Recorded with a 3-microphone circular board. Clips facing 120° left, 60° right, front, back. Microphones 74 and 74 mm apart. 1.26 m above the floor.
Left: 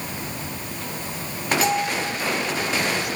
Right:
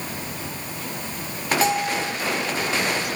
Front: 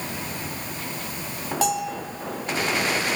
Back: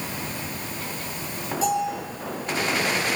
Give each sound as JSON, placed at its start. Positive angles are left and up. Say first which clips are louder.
{"t": 1.6, "sound": "a bell", "louder": "right 1 dB, back 1 dB", "azimuth_deg": -5, "distance_m": 3.0}